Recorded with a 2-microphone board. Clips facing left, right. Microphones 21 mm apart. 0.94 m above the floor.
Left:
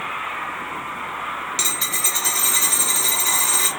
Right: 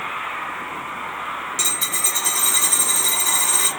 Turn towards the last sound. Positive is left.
turn(degrees=45)  # may be behind; listen again after turning